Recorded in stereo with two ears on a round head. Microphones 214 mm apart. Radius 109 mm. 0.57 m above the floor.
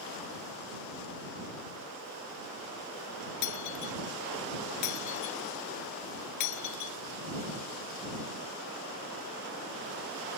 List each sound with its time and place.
3.4 s breaking glass: 90° left